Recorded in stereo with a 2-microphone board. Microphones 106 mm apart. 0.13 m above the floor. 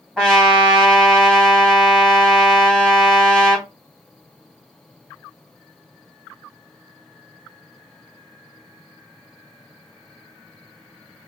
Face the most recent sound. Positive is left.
turn(degrees=5)  # may be behind; listen again after turning